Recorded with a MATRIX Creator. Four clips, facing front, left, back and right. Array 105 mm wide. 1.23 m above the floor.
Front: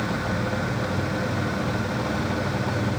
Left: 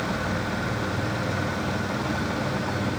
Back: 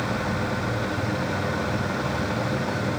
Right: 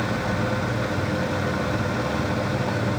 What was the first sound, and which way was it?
Only background noise.